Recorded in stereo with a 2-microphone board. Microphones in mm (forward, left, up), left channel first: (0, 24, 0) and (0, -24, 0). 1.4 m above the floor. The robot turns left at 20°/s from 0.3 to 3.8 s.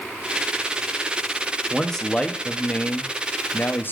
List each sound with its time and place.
1.7 s a man speaking: 175° left, 0.9 m; by 3.9 s 130° left, 0.9 m